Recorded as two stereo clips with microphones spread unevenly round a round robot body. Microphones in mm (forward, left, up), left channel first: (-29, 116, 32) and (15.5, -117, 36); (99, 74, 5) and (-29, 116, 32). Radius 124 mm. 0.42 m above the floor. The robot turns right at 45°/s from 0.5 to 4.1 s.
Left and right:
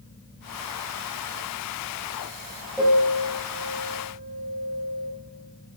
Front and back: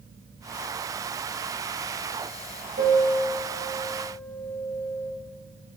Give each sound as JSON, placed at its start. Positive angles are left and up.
{"t": 2.8, "sound": "a piano", "azimuth_deg": -170, "distance_m": 2.0}